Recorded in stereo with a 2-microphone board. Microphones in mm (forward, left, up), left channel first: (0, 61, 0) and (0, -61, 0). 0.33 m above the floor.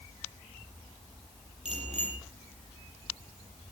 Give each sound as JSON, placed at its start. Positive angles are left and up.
{"t": 1.6, "sound": "a bicycle bell", "side_deg": -75, "distance_m": 7.5}